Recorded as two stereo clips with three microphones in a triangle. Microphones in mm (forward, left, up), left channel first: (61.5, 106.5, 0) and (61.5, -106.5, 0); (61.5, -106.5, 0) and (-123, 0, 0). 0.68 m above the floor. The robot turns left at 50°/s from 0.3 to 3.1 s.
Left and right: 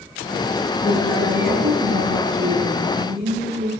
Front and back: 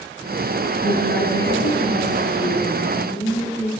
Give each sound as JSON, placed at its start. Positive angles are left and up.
{"t": 0.8, "sound": "a woman speaking", "azimuth_deg": -5, "distance_m": 8.0}